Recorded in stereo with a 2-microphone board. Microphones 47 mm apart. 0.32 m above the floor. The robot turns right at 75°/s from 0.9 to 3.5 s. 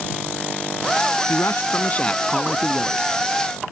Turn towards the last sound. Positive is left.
turn(degrees=-100)